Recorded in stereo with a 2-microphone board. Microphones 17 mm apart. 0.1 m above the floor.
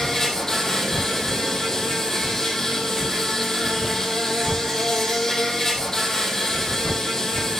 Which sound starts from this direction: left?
An insect, at 0.0 s.